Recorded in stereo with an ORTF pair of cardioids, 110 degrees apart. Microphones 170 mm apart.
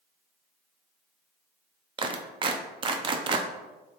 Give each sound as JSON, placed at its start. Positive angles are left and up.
{"t": 2.0, "sound": "a clap", "azimuth_deg": -30, "distance_m": 0.6}